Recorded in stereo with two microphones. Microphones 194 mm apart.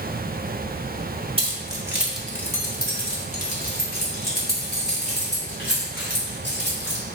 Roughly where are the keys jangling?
Right.